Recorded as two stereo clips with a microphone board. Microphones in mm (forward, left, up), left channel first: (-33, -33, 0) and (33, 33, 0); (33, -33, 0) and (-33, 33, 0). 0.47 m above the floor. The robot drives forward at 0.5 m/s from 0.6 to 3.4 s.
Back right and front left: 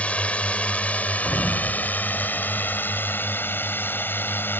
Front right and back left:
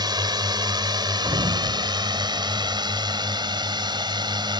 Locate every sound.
0.0 s a drone: 155° left; by 4.6 s 160° left
1.2 s a sliding door: 150° left; by 4.5 s 165° left